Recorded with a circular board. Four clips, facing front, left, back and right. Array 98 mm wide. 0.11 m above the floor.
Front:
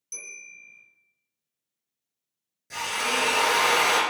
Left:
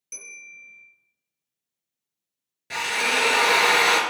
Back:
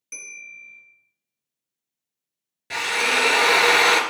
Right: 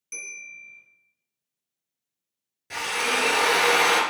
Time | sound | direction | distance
0.1 | a bell | 165° right | 1.2 m
2.7 | a drill | 155° left | 0.6 m